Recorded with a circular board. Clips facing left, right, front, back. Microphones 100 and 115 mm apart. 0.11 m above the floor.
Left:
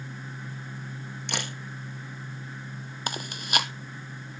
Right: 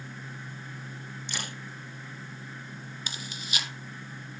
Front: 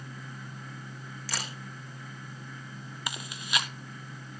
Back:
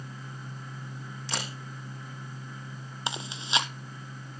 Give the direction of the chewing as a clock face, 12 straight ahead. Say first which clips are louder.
Left 9 dB, back 3 dB; 8 o'clock.